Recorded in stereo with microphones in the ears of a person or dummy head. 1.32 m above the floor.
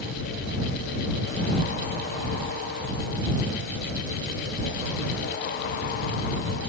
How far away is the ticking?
No ticking in this recording.